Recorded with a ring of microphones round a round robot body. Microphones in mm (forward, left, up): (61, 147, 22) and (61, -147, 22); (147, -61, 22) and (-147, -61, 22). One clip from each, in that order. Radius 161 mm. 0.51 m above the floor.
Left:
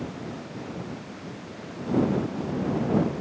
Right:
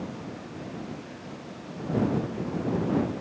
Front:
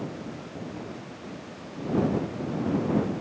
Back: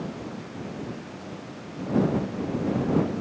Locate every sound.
Only background noise.